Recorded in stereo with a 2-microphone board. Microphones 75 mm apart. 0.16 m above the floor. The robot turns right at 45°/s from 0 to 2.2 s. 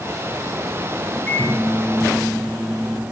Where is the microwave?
150° left, 6.5 m; by 3.0 s 165° right, 6.5 m.